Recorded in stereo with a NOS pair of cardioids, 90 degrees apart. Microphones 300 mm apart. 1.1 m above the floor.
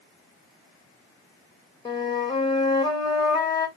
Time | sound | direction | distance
1.9 | a flute | 15° left | 0.9 m